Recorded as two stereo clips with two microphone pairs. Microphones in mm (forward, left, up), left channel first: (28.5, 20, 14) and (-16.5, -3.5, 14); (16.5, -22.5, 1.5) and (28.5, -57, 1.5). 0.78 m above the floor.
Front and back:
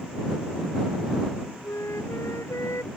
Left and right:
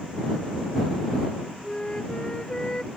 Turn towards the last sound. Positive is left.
turn(degrees=40)